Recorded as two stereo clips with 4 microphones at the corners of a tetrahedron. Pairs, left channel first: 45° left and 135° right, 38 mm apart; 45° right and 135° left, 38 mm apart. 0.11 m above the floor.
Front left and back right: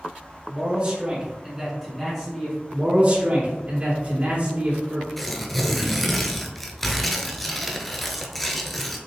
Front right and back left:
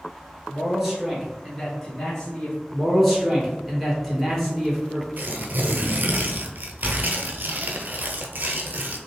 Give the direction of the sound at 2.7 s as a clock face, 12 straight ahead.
4 o'clock.